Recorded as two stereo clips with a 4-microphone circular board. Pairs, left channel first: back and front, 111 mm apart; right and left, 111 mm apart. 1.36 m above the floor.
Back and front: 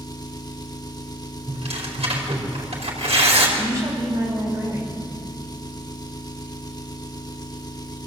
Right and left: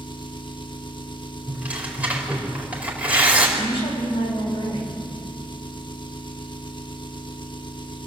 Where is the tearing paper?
15° left, 4.5 m.